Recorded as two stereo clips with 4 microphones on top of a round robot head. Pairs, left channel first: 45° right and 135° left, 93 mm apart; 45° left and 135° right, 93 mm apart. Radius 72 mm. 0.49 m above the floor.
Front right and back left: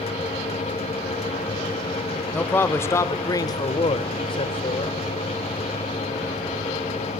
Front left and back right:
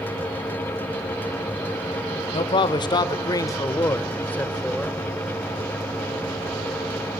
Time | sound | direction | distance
2.3 | a man speaking | 25° left | 1.7 m